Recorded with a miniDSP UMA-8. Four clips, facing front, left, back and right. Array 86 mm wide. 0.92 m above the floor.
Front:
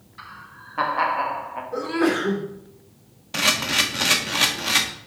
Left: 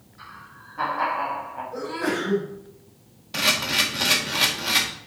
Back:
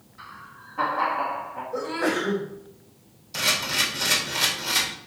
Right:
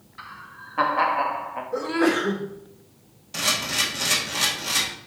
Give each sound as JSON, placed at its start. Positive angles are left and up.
{"t": 0.2, "sound": "laughter", "azimuth_deg": -50, "distance_m": 1.6}
{"t": 1.7, "sound": "a sneeze", "azimuth_deg": -35, "distance_m": 2.0}
{"t": 3.3, "sound": "a camera shutter", "azimuth_deg": 15, "distance_m": 1.5}